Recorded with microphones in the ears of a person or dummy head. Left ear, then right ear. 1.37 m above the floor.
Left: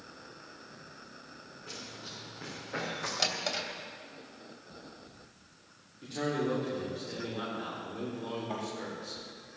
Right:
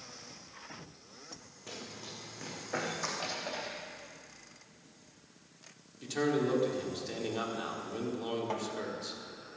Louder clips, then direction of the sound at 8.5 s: Right 1 dB; 75° right (ahead or behind).